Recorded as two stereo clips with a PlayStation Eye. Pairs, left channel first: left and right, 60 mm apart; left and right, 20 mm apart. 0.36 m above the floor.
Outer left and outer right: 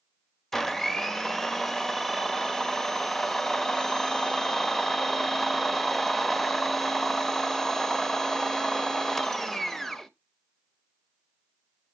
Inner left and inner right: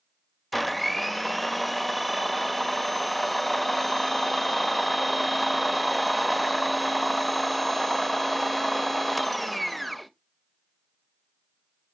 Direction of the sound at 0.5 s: 5° left (ahead or behind).